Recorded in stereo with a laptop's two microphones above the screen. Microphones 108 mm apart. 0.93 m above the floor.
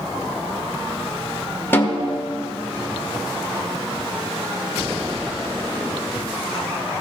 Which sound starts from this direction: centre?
A snare drum, at 1.7 s.